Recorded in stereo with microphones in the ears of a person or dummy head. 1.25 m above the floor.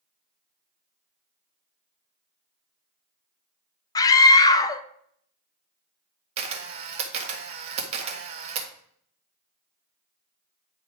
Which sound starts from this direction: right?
A camera shutter, at 6.4 s.